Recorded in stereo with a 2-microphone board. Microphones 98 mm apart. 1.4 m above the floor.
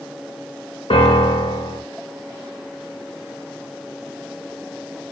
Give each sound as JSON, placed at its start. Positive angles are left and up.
{"t": 0.9, "sound": "a piano", "side_deg": 70, "distance_m": 2.5}